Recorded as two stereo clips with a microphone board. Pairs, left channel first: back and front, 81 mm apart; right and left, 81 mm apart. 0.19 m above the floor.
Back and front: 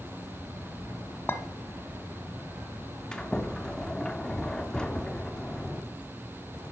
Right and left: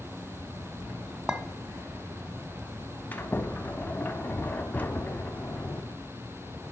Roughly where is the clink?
Behind.